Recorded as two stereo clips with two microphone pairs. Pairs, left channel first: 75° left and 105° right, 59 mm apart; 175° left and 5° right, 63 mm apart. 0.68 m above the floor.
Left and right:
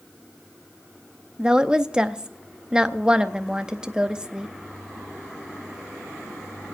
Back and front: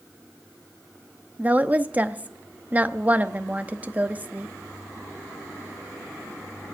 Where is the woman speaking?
40° right, 0.6 m.